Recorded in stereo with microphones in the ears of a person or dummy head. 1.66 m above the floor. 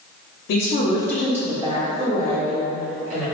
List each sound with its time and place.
0.5 s a woman speaking: 65° left (ahead or behind), 0.7 m; by 3.2 s 50° right (ahead or behind), 2.5 m